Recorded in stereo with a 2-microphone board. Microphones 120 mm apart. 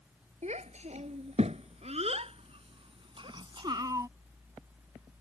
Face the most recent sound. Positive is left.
turn(degrees=-25)  # may be behind; listen again after turning